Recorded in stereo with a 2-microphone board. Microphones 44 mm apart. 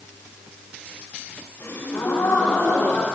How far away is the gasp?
About 9 m.